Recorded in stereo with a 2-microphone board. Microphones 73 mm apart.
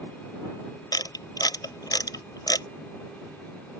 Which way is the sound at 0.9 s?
65° left (ahead or behind).